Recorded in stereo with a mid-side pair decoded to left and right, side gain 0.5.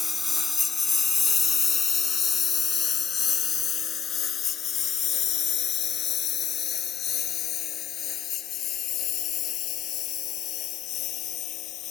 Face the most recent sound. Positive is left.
turn(degrees=70)